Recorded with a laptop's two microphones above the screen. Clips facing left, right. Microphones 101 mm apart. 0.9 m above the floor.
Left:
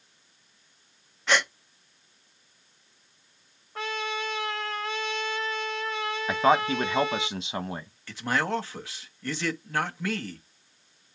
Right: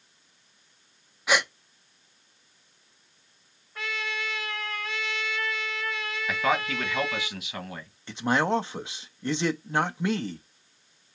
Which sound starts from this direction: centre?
A gasp, at 1.3 s.